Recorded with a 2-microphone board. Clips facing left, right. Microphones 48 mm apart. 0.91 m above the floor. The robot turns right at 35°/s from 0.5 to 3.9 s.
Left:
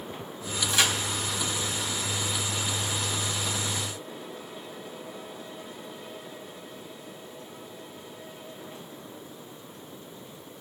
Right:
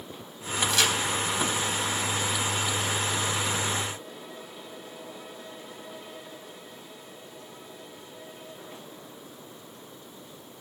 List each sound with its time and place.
0.7 s a crack: 20° left (ahead or behind), 4 m; by 0.9 s 10° left (ahead or behind), 4 m